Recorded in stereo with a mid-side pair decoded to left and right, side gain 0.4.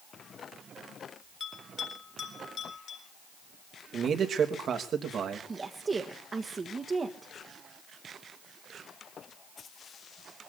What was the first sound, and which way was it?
A bell, 60° left.